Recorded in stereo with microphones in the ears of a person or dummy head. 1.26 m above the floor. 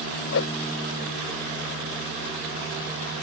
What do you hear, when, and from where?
0.3 s a whoosh: 55° left (ahead or behind)